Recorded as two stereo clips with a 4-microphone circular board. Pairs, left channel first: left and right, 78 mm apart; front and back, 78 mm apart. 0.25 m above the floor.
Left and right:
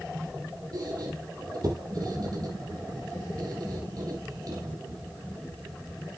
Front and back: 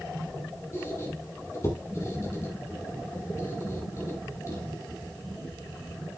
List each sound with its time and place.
0.7 s a squeak: 55° right, 6 m